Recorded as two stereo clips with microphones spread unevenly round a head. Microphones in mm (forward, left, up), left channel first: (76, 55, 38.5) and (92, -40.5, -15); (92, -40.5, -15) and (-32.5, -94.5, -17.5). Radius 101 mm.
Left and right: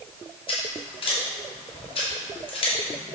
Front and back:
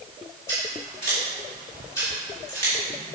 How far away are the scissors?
About 2 m.